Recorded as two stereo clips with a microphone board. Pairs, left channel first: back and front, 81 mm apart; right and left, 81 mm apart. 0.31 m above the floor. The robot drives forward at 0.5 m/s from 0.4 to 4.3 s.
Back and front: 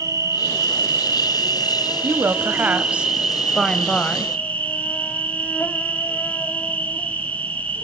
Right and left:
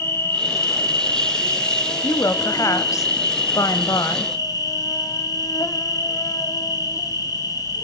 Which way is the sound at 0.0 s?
40° right.